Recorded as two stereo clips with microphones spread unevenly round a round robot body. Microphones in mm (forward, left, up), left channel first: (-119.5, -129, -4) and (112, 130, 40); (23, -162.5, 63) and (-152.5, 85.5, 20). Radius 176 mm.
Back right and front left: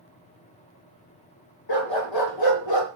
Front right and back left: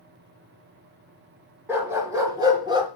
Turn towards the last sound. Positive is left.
turn(degrees=-160)